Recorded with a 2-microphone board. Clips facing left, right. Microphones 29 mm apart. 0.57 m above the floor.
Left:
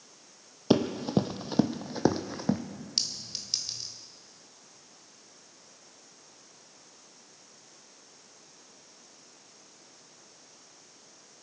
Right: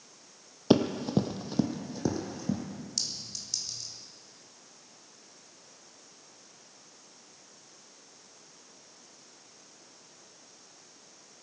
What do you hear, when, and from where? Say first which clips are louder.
0.7 s running footsteps: right 1 dB; centre (ahead or behind), 0.8 m; by 2.6 s 60° left (ahead or behind), 1.2 m
3.0 s a clink: left 5 dB; 55° left (ahead or behind), 1.2 m